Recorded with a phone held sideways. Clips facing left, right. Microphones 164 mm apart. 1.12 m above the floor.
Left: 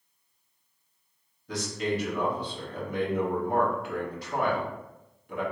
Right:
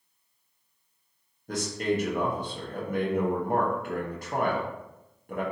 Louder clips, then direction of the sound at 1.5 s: Right 2 dB; 50° right (ahead or behind).